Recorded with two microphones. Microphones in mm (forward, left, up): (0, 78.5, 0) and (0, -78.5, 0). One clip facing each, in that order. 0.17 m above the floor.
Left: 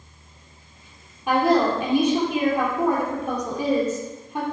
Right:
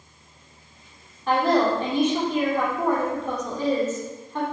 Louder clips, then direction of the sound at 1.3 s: Left 1 dB; 10° left (ahead or behind).